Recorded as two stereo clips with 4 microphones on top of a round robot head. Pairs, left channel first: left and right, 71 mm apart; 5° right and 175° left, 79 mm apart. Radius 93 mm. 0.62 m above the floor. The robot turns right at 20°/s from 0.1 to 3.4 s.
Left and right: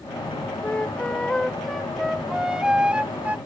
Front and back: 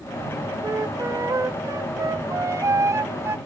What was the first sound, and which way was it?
A flute, 155° left.